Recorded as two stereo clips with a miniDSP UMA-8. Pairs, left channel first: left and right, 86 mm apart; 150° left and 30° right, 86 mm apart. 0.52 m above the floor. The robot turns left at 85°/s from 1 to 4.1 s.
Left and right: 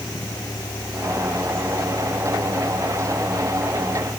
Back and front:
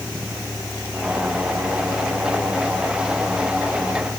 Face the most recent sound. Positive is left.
turn(degrees=140)